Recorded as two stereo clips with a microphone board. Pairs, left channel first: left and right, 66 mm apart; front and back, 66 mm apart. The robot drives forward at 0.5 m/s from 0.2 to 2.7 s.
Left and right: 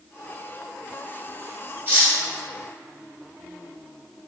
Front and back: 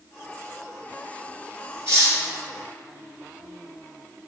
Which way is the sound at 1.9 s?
140° right.